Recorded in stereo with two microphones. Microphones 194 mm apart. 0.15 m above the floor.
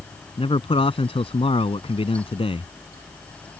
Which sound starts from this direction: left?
A man speaking, at 0.4 s.